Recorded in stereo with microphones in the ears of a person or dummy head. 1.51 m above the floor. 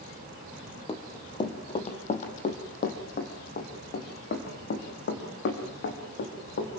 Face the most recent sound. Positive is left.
turn(degrees=70)  # may be behind; listen again after turning